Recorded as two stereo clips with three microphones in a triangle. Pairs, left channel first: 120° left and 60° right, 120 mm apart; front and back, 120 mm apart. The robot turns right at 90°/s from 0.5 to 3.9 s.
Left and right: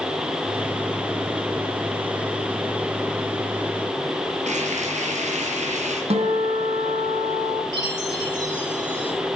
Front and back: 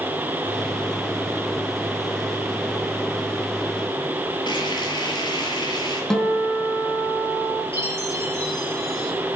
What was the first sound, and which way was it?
Frying, 50° right.